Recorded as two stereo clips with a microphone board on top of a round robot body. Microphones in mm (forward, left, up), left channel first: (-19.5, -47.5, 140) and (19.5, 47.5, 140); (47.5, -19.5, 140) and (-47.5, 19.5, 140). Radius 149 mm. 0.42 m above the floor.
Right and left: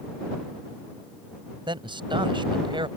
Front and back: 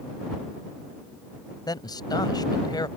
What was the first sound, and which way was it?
A man speaking, 30° left.